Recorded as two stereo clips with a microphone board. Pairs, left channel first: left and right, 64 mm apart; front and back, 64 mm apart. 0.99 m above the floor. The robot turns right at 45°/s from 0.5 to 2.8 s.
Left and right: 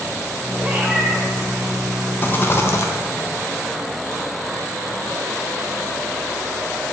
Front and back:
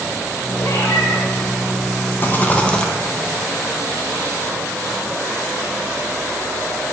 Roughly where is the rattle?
Ahead left.